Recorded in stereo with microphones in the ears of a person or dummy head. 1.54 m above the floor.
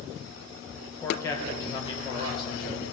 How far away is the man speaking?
About 1.3 m.